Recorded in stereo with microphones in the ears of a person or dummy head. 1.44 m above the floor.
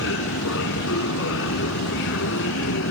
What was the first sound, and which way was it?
A machine running, 70° left (ahead or behind).